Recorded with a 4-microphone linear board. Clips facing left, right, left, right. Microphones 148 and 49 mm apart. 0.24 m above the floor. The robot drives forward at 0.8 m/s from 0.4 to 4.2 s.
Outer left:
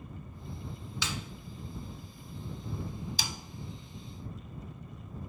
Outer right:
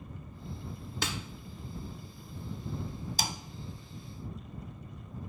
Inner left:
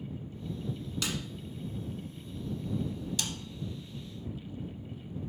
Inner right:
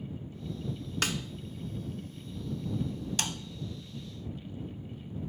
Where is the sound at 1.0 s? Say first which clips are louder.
Outer right 2 dB, inner right 4 dB; 55° right (ahead or behind), 0.9 m; by 1.2 s 60° right (ahead or behind), 0.9 m.